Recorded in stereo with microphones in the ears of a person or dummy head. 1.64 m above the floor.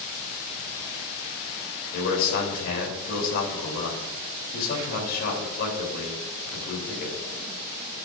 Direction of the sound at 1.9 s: 60° left (ahead or behind).